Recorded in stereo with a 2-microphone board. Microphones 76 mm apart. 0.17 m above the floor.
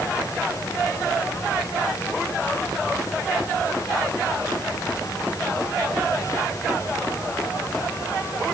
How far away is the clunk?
I don't hear a clunk.